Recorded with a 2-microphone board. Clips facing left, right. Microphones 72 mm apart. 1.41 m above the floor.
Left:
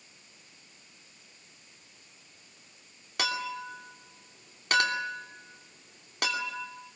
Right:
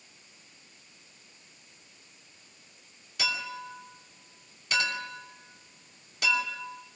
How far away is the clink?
About 2.5 m.